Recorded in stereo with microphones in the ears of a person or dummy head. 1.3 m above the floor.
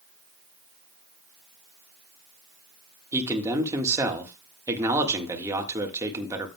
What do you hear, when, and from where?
3.1 s a man speaking: 20° right (ahead or behind), 1.6 m